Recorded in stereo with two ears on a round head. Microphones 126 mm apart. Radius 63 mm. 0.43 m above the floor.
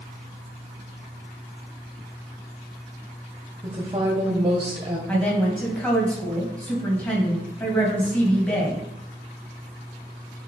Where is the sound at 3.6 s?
25° right (ahead or behind), 1.8 m.